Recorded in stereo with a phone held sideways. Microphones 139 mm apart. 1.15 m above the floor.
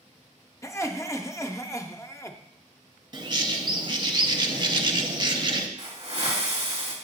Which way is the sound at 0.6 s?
20° left (ahead or behind).